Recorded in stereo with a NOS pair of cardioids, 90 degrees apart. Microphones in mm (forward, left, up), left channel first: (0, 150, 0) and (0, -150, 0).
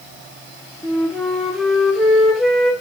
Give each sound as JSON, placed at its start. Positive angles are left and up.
{"t": 0.8, "sound": "a flute", "azimuth_deg": 0, "distance_m": 0.5}